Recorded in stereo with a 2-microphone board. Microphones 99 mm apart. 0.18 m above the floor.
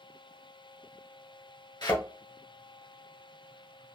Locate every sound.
1.8 s a thud: 45° left (ahead or behind), 1.3 m